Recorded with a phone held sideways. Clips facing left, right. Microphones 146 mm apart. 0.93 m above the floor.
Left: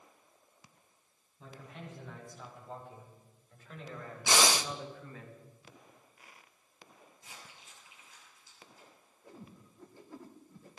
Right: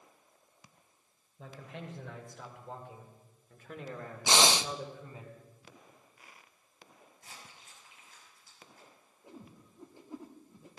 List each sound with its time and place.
1.4 s a man speaking: 85° right, 3.5 m; by 5.3 s 30° right (ahead or behind), 2.5 m
4.3 s breathing: 20° right (ahead or behind), 0.6 m
7.2 s crumpling: 55° right (ahead or behind), 7 m
9.2 s a whoosh: 20° right (ahead or behind), 1.8 m